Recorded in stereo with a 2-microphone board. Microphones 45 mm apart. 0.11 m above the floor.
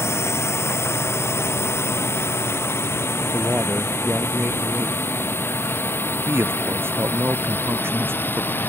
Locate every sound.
0.0 s a drone: 80° left; by 8.7 s 55° left (ahead or behind)
3.3 s a man speaking: 45° right (ahead or behind)
6.3 s a man speaking: 65° right (ahead or behind)